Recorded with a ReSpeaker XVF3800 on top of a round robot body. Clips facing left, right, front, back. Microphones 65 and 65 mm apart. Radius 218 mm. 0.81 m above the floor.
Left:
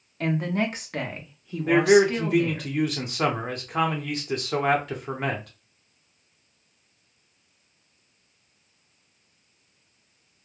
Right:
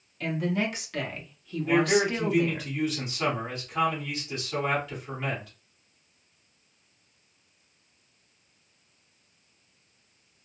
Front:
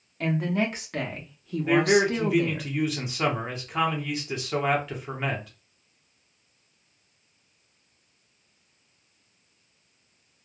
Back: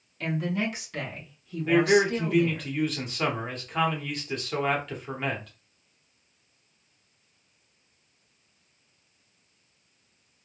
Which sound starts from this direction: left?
A man speaking, at 1.7 s.